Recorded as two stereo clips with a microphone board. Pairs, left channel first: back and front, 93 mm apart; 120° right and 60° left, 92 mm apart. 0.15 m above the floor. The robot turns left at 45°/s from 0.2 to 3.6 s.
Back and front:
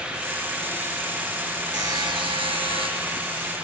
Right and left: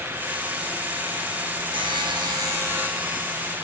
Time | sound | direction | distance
1.7 | a buzzer | 40° left | 5 m